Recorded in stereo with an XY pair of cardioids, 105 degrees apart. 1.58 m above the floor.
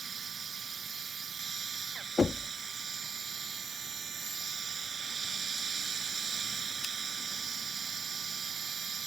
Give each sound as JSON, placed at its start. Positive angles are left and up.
{"t": 0.0, "sound": "a machine running", "azimuth_deg": -40}
{"t": 2.2, "sound": "knocking", "azimuth_deg": 30}